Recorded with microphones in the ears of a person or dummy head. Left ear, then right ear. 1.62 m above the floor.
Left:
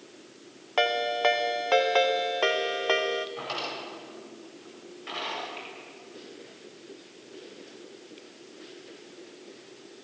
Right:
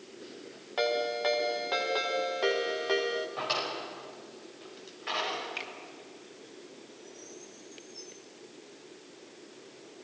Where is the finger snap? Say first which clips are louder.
Right 2 dB; 80° right, 2 m.